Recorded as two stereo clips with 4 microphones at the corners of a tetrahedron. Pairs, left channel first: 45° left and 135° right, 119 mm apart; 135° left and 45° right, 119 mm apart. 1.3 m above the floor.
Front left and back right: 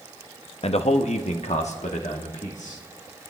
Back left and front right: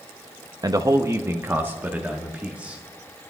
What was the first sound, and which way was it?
A man speaking, 10° left.